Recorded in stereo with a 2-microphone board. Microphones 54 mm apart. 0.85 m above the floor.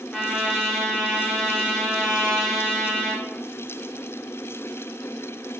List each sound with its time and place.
0.1 s a trumpet: 5° left (ahead or behind), 0.7 m